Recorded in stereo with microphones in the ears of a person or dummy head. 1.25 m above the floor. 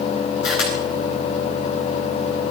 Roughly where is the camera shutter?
Left.